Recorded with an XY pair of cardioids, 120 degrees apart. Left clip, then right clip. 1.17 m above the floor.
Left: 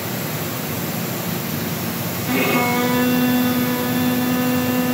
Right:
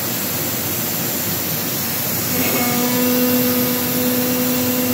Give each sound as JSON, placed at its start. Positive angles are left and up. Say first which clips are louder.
{"t": 2.3, "sound": "a violin", "louder": "left 3 dB", "azimuth_deg": 50, "distance_m": 8.0}